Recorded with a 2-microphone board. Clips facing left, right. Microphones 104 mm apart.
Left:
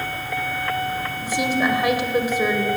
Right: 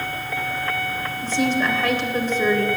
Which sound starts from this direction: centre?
A woman speaking, at 1.2 s.